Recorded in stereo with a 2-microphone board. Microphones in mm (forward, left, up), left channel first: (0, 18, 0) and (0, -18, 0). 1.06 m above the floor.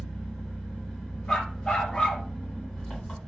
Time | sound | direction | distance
0.0 | an engine running | 15° left (ahead or behind) | 1.9 m
1.3 | a dog barking | 25° left (ahead or behind) | 0.5 m